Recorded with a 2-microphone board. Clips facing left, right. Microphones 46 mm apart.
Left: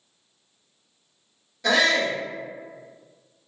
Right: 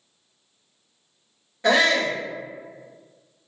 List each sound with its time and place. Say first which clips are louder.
1.6 s a shout: right 2 dB; 30° right (ahead or behind), 1.1 m